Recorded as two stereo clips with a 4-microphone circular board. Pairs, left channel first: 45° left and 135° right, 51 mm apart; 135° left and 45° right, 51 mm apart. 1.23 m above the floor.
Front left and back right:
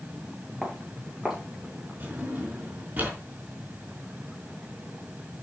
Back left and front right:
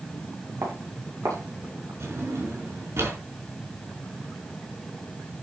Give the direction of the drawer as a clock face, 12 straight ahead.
3 o'clock.